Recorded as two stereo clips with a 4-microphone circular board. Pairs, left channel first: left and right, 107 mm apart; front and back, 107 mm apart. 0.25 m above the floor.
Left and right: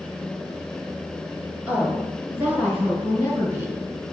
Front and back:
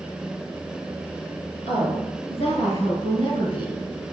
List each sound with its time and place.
1.7 s a woman speaking: 15° right, 4.5 m; by 3.8 s 30° right, 3.5 m